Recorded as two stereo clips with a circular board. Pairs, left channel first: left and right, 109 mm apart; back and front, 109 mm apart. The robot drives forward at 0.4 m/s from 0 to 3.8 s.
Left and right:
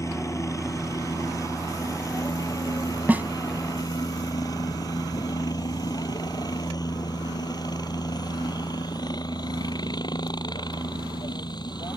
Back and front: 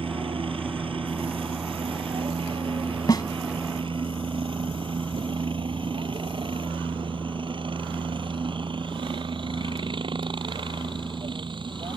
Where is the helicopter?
30° left; by 12.0 s 40° left.